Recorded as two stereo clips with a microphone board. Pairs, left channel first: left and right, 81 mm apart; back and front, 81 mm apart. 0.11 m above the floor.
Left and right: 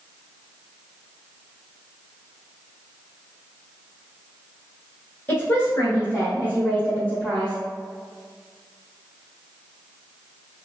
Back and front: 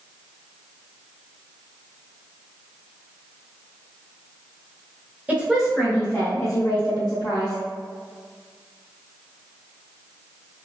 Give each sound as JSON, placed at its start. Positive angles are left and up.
{"t": 5.3, "sound": "a woman speaking", "azimuth_deg": 55, "distance_m": 1.2}